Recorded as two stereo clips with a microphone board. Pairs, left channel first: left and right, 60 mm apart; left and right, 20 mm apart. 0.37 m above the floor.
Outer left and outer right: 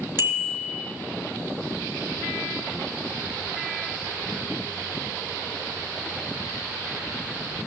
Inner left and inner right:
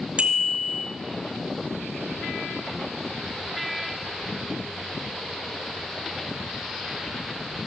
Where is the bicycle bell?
40° right (ahead or behind), 3.5 m.